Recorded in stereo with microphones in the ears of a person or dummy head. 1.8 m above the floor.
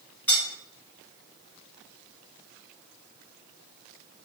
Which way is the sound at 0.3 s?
10° left (ahead or behind).